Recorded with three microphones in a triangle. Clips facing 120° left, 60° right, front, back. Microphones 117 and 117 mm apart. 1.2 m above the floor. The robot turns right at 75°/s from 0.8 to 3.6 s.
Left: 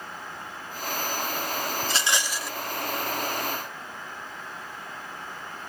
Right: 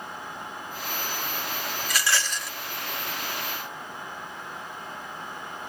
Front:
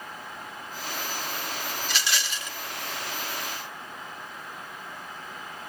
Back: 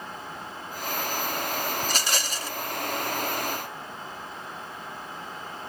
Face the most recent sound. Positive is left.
turn(degrees=-65)